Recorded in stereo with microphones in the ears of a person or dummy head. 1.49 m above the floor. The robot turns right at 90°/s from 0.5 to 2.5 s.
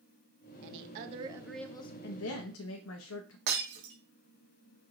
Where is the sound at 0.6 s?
80° right, 0.6 m; by 1.9 s 35° left, 0.6 m.